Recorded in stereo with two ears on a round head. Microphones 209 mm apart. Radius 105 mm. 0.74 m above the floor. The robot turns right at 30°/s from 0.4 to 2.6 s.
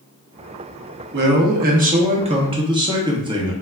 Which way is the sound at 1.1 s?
70° right.